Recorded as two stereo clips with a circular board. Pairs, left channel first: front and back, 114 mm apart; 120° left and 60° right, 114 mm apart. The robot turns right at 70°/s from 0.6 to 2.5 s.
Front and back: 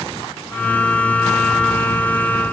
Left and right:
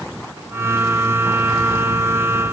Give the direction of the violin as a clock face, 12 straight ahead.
I don't hear a violin.